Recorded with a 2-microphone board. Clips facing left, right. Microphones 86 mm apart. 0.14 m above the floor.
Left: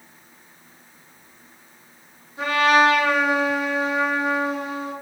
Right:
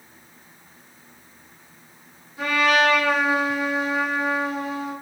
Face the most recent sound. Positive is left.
turn(degrees=25)  # may be behind; listen again after turning